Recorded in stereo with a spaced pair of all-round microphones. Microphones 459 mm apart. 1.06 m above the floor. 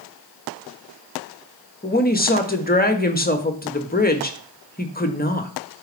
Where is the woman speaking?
20° left (ahead or behind), 1.2 m.